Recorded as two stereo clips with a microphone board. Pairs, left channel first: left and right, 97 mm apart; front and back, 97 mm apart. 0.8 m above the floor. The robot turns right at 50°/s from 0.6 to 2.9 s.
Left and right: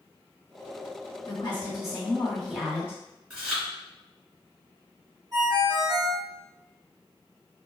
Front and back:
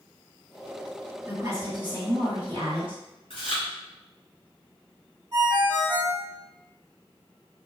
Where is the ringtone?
135° right, 1.2 m.